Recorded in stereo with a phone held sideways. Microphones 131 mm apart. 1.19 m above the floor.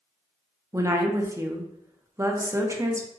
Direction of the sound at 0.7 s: 25° right (ahead or behind).